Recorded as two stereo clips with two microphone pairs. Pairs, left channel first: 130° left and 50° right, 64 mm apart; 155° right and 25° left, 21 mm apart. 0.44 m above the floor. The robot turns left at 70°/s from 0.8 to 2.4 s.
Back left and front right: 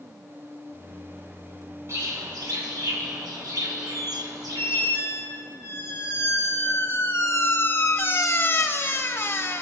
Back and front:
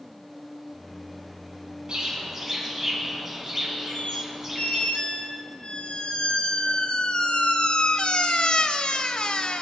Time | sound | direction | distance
1.9 | a bird | 10° right | 3 m
3.9 | a squeak | straight behind | 0.6 m